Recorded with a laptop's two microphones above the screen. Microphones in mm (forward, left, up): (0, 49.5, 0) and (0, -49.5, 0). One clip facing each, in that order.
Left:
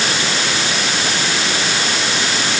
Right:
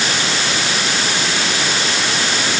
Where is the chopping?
I don't hear chopping.